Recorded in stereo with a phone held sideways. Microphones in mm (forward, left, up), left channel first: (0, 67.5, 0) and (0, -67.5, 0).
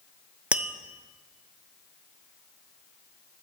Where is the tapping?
10° right (ahead or behind), 0.6 m.